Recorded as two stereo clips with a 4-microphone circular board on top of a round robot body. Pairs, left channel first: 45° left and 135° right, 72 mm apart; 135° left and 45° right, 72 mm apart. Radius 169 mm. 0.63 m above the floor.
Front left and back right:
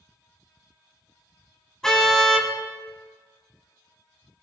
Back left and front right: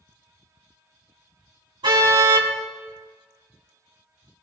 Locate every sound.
1.8 s a car horn: 40° right, 3 m